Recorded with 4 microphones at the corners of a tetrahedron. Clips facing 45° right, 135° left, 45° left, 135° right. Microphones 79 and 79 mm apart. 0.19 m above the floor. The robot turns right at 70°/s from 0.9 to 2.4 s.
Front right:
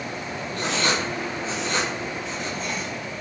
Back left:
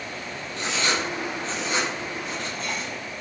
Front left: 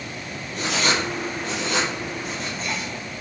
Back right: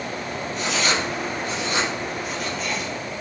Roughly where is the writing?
Ahead.